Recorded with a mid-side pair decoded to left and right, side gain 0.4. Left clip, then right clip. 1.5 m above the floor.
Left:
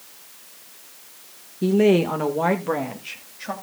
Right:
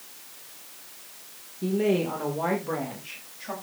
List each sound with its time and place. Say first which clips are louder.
1.6 s a woman speaking: left 7 dB; 70° left, 1.5 m; by 3.5 s 45° left, 3.5 m